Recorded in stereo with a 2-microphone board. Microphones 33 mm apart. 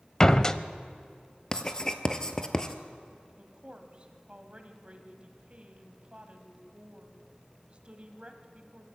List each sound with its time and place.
0.2 s a door slam: 20° left (ahead or behind), 0.6 m
1.5 s writing: 20° left (ahead or behind), 1.1 m
3.4 s a woman speaking: 35° right (ahead or behind), 1.8 m